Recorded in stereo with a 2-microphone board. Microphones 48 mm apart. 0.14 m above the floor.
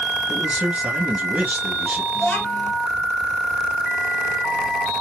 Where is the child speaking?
45° left (ahead or behind), 2 m.